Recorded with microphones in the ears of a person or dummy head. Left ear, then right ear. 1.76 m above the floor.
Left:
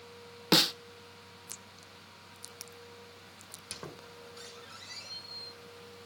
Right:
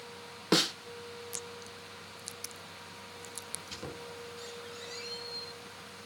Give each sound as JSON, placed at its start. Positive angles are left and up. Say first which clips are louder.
{"t": 0.5, "sound": "a snare drum", "louder": "left 3 dB", "side_deg": 25, "distance_m": 0.5}
{"t": 3.5, "sound": "a squeak", "louder": "even", "side_deg": 60, "distance_m": 5.0}